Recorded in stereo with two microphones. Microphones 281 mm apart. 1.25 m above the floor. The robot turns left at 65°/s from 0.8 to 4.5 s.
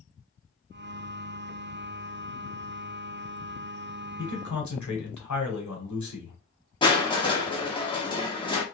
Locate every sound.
4.2 s a man speaking: 75° left (ahead or behind), 1.0 m
6.8 s crushing: 15° left (ahead or behind), 0.8 m